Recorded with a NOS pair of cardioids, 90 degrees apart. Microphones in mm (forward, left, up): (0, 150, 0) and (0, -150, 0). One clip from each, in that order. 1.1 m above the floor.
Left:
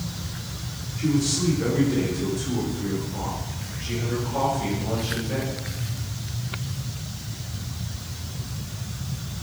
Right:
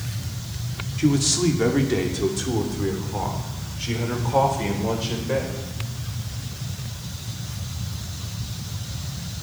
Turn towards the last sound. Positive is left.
turn(degrees=-75)